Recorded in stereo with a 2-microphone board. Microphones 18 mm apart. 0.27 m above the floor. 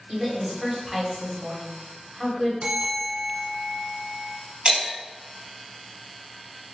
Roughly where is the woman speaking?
Centre.